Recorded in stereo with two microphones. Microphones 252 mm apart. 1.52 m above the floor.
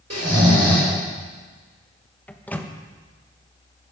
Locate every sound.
0.1 s snoring: 70° right (ahead or behind), 5 m
2.3 s a microwave: 5° left (ahead or behind), 1.2 m